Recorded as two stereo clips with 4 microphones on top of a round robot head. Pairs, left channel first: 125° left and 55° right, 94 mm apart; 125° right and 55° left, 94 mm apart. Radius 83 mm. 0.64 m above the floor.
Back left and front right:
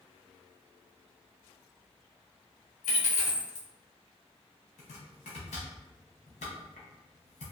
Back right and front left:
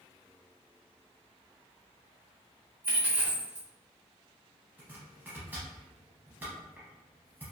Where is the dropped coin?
130° left, 0.6 m.